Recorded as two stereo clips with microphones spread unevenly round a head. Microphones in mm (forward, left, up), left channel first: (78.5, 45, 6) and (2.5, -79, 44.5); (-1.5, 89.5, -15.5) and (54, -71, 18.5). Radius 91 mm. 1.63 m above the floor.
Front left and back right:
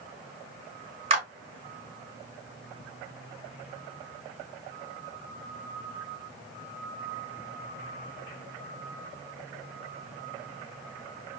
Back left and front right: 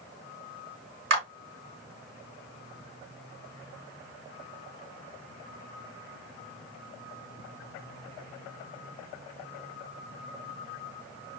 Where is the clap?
80° right, 2.5 m.